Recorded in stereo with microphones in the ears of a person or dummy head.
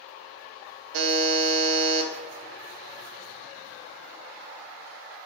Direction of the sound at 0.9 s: 65° right (ahead or behind).